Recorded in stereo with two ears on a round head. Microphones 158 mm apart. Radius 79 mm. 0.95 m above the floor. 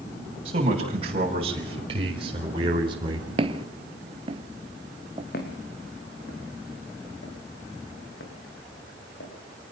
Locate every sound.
0.5 s a man speaking: 35° right (ahead or behind), 6.5 m; by 3.3 s 30° right (ahead or behind), 3.5 m
3.4 s footsteps: 35° right (ahead or behind), 1.1 m; by 5.2 s 25° right (ahead or behind), 1.2 m
5.3 s footsteps: 60° left (ahead or behind), 4 m; by 9.3 s 85° left, 7.5 m